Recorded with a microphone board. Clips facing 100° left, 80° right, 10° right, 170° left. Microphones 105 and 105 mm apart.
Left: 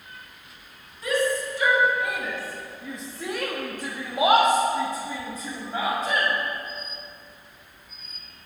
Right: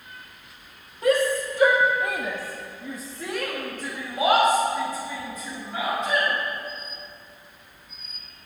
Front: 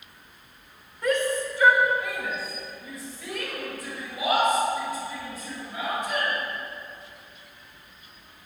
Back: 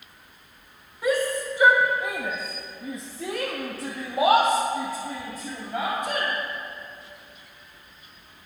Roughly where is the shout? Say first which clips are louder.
Right 3 dB, back 1 dB; right.